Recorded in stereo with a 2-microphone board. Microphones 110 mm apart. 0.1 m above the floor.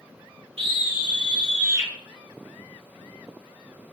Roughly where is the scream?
Right.